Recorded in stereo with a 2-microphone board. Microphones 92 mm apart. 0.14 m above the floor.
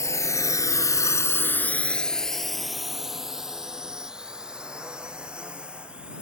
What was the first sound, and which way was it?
A drone, 35° left (ahead or behind).